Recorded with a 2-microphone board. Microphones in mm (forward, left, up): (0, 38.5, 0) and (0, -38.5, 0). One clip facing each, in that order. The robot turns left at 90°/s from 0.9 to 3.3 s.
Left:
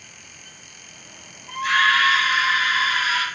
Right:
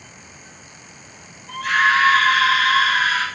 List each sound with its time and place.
1.5 s a scream: 25° left, 4.5 m; by 3.2 s 135° right, 4.5 m